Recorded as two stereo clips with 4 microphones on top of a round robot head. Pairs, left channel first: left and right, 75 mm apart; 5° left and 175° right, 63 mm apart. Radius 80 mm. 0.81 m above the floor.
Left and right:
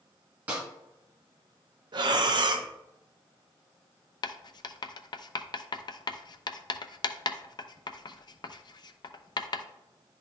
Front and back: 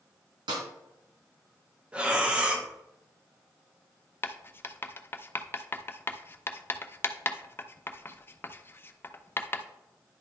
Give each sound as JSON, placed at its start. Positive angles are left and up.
{"t": 0.5, "sound": "a snare drum", "azimuth_deg": -165, "distance_m": 1.9}
{"t": 1.9, "sound": "breathing", "azimuth_deg": -100, "distance_m": 0.8}
{"t": 4.2, "sound": "writing", "azimuth_deg": 65, "distance_m": 0.6}